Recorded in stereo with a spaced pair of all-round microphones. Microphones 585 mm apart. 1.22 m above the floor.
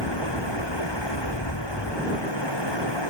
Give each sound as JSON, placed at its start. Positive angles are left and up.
{"t": 0.0, "sound": "running water", "side_deg": 40}